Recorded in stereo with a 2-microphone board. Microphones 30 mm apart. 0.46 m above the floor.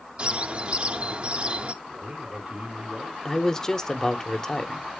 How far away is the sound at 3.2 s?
About 0.7 m.